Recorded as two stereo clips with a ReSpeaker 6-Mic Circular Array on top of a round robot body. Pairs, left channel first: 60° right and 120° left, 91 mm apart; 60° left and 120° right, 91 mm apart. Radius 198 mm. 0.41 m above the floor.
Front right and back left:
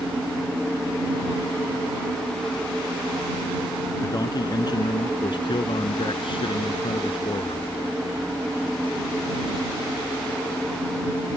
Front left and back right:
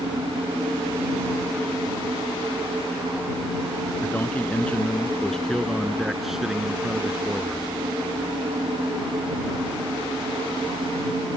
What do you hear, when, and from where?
4.0 s a man speaking: 10° right; by 7.7 s 45° right